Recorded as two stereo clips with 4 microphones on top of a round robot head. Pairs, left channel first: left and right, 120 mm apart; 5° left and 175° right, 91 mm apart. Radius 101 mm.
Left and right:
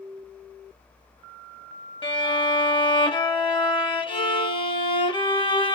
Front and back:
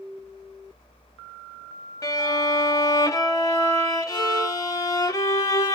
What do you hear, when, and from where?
2.0 s a violin: 50° left, 0.9 m